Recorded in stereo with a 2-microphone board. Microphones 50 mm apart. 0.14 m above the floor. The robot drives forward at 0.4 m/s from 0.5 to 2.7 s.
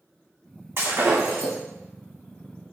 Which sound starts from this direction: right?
Breaking glass, at 0.8 s.